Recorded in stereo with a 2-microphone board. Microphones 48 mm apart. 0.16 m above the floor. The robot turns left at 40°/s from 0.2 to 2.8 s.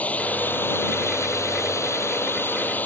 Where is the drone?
30° left (ahead or behind); by 2.9 s 35° left (ahead or behind).